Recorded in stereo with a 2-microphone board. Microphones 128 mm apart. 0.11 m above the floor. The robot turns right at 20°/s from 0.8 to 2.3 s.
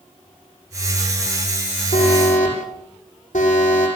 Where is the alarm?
75° left (ahead or behind), 8 m.